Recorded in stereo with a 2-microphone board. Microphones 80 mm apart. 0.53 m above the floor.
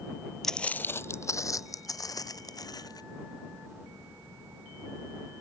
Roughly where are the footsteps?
Centre.